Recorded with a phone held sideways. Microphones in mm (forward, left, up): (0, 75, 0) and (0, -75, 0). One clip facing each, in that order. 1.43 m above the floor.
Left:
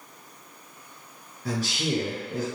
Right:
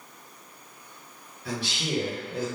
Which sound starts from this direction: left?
A man speaking, at 1.4 s.